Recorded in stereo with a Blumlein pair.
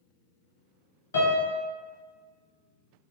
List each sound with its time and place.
1.1 s a piano: 65° left, 0.8 m